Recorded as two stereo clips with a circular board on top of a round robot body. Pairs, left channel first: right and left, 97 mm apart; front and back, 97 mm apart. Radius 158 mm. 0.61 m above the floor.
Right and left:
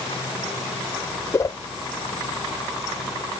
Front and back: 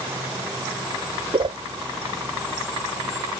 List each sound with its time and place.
1.3 s a whoosh: 150° right